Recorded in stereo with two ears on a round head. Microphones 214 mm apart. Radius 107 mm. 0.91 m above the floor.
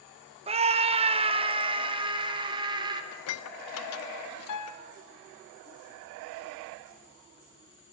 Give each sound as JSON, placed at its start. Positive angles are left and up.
{"t": 0.5, "sound": "a scream", "side_deg": -25, "distance_m": 0.6}
{"t": 3.1, "sound": "dishes clattering", "side_deg": 70, "distance_m": 0.8}
{"t": 4.5, "sound": "a piano", "side_deg": 80, "distance_m": 1.0}